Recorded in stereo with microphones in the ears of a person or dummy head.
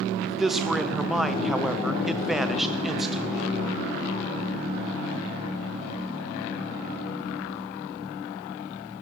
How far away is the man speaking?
About 0.6 m.